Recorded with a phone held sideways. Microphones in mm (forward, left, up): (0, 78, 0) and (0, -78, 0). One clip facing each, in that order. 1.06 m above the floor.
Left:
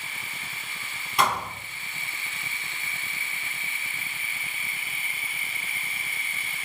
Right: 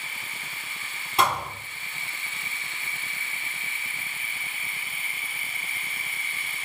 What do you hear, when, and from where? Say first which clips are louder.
1.2 s a thud: right 1 dB; 25° right (ahead or behind), 3.5 m